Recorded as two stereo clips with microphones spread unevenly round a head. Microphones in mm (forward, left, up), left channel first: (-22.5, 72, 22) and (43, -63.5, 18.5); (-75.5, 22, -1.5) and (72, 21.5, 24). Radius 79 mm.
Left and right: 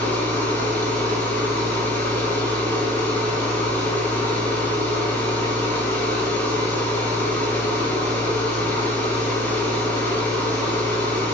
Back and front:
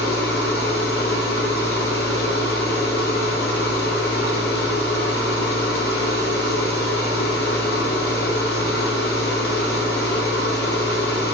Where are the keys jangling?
I don't hear keys jangling.